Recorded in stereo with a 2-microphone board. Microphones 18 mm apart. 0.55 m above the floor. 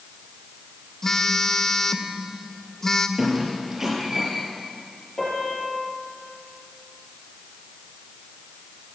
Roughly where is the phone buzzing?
Left.